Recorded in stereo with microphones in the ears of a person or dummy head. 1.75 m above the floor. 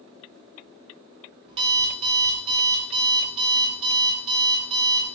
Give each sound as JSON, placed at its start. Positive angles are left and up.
{"t": 1.5, "sound": "an alarm clock", "side_deg": -35, "distance_m": 1.5}